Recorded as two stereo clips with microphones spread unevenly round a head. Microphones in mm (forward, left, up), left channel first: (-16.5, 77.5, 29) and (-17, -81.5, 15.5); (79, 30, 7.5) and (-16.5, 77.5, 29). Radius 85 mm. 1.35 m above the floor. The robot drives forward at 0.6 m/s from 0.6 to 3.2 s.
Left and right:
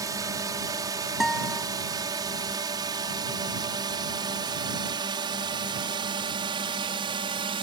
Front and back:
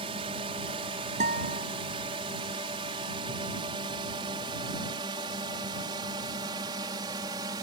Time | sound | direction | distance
0.0 | a drone | 155° right | ?
1.2 | a guitar | straight behind | ?